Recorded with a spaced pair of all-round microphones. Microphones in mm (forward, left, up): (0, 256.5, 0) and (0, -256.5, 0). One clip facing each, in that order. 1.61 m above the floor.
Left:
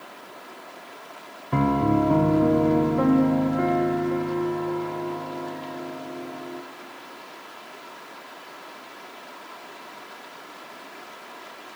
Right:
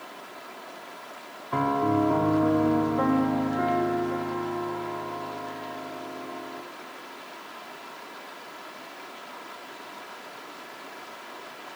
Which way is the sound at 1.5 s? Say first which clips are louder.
Left 4 dB; 50° left (ahead or behind).